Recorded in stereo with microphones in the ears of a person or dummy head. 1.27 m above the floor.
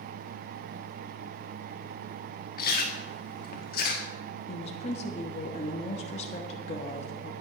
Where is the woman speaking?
35° left (ahead or behind), 1.1 m.